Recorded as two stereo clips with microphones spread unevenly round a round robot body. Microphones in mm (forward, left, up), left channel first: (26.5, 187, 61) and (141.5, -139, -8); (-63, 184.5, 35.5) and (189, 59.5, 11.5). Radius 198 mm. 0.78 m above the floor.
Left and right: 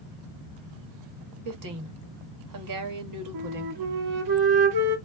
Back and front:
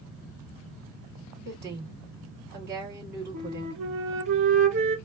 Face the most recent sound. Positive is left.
turn(degrees=-60)